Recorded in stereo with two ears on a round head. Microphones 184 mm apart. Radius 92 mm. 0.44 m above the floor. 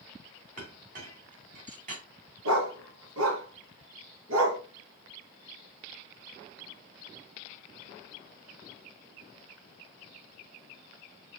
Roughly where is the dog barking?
Right.